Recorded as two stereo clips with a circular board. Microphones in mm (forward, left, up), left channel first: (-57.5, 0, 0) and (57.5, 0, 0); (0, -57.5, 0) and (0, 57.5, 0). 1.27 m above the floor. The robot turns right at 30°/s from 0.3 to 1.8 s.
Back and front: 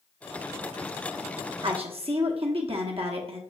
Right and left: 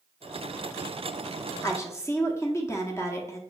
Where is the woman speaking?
30° right, 0.8 m; by 3.4 s 25° right, 0.8 m.